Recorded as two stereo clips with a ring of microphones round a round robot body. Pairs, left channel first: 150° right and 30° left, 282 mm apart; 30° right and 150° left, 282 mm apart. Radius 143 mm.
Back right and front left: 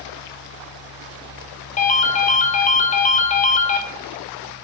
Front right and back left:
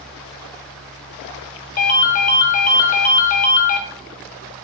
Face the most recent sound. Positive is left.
turn(degrees=-90)